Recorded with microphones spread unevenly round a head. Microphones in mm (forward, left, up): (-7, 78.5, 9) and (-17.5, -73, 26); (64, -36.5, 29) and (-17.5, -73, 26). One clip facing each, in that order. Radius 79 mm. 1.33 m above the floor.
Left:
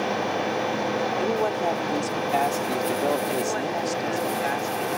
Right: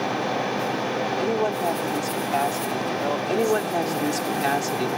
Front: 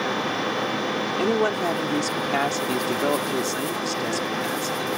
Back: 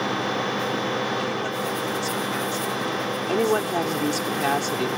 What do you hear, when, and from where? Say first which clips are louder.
1.2 s a woman speaking: right 2 dB, front 5 dB; 15° right; by 4.3 s 30° left
3.3 s a woman speaking: right 4 dB, back 4 dB; 130° right